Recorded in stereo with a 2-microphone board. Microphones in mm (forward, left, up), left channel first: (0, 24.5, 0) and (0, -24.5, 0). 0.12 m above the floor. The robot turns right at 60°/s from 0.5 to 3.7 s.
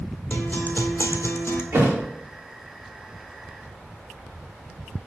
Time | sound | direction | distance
0.3 | a guitar | 45° left | 1.1 m
1.7 | a thud | 50° right (ahead or behind) | 4.5 m